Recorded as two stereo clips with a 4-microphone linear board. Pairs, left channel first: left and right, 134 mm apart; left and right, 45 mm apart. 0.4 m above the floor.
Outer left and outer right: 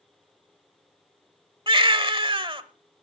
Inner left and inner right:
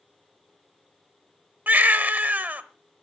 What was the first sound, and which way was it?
A baby crying, 40° right (ahead or behind).